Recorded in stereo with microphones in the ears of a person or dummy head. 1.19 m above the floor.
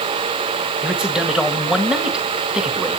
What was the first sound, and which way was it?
A man speaking, centre (ahead or behind).